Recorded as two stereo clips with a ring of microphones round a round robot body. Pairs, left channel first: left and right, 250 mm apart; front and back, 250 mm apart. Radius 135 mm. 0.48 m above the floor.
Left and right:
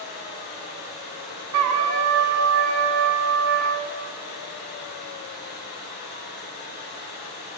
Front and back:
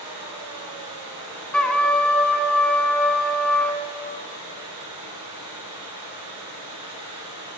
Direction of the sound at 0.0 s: 140° left.